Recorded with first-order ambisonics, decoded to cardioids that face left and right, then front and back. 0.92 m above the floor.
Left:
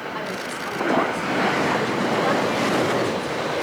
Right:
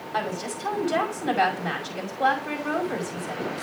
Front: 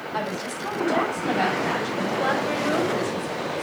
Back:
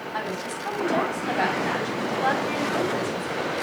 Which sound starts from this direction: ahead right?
A woman speaking, at 0.1 s.